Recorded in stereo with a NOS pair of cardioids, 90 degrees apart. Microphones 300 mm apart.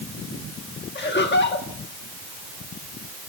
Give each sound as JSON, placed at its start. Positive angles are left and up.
{"t": 0.9, "sound": "laughter", "azimuth_deg": 35, "distance_m": 2.0}